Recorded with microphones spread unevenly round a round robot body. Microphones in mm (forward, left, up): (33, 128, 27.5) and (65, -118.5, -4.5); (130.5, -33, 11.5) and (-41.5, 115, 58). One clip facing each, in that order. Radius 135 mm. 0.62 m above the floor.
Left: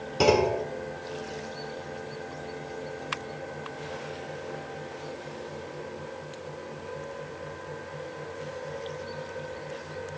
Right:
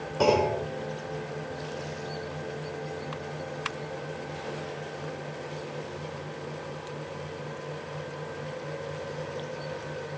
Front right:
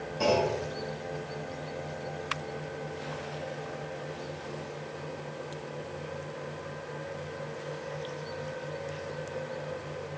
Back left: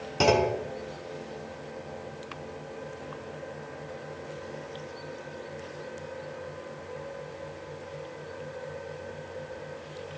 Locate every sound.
0.2 s a clunk: 165° left, 0.9 m